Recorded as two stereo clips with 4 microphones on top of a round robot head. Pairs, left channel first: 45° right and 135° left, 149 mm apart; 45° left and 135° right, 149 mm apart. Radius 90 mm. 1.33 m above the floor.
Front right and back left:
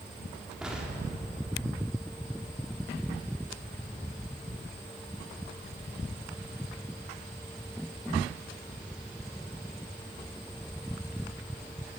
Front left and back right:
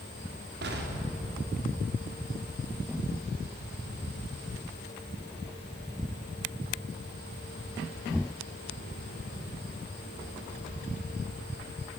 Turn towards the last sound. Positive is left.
turn(degrees=-140)